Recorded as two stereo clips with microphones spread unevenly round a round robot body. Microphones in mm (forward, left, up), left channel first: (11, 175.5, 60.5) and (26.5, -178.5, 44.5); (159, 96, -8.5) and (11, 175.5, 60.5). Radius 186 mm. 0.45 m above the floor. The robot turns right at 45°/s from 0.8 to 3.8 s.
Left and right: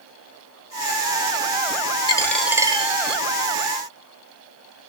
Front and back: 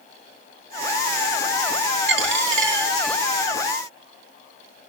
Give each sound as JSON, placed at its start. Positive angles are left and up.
{"t": 2.1, "sound": "a dropped coin", "azimuth_deg": 170, "distance_m": 0.6}